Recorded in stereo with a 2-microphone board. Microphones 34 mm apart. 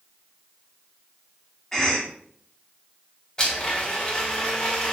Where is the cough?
10° left (ahead or behind), 0.8 m.